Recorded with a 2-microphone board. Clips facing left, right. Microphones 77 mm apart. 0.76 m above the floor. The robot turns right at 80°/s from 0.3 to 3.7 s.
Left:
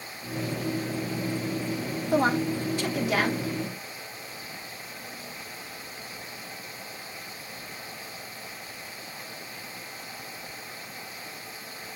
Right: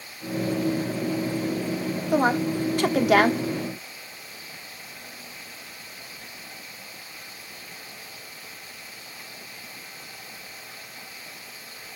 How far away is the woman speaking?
About 1.5 m.